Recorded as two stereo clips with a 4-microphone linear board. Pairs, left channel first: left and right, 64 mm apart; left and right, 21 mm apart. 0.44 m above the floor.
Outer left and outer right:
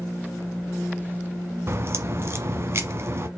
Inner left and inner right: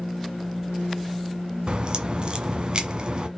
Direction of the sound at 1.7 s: 40° right (ahead or behind).